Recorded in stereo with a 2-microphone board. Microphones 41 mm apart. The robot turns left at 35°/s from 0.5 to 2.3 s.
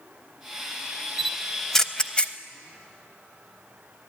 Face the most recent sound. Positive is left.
turn(degrees=25)  # may be behind; listen again after turning